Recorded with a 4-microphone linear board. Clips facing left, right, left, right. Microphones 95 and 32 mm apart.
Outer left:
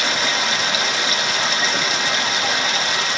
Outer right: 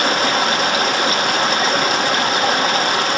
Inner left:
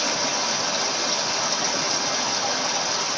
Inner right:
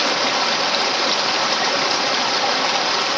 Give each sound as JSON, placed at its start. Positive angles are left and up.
{"t": 0.0, "sound": "running water", "side_deg": -50, "distance_m": 1.0}